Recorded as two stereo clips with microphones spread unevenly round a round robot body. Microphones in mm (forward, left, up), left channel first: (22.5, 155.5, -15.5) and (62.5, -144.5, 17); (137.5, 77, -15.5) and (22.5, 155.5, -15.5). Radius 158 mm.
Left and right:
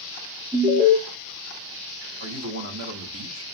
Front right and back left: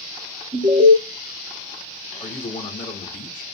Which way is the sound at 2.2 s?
40° right.